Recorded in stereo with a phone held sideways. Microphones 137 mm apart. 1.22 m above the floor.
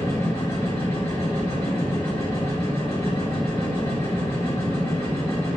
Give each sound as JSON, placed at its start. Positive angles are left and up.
{"t": 0.0, "sound": "a machine running", "side_deg": 20, "distance_m": 1.5}